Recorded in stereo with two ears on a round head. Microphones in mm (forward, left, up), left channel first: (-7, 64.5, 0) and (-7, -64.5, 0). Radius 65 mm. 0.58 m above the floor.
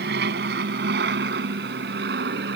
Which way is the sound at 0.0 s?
70° right (ahead or behind).